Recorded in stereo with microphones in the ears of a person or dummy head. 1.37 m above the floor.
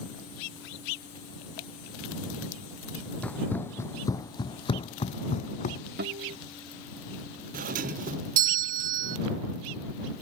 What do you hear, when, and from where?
3.2 s running footsteps: 5° left (ahead or behind); by 5.8 s 40° left (ahead or behind)
6.0 s a guitar: 50° right (ahead or behind)
7.5 s a doorbell: 40° right (ahead or behind)